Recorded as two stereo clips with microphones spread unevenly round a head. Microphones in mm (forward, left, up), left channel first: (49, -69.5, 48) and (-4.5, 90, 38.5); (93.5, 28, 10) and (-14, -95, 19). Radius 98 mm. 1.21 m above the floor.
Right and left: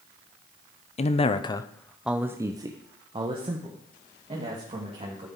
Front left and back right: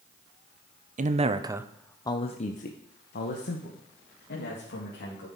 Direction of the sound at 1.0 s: 110° right.